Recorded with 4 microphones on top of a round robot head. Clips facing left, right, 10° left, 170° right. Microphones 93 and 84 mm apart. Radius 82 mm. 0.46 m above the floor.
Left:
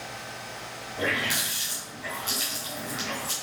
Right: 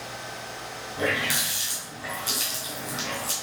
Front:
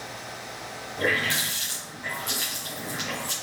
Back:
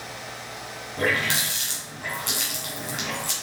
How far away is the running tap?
About 3 m.